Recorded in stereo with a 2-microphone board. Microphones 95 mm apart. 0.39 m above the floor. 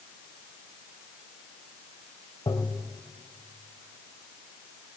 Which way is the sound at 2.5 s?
55° left (ahead or behind).